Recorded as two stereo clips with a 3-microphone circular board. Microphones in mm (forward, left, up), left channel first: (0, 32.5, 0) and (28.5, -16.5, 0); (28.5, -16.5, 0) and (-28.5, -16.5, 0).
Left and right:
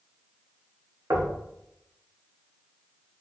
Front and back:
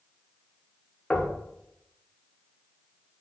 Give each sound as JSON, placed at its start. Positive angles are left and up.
{"t": 1.1, "sound": "knocking", "azimuth_deg": -70, "distance_m": 0.7}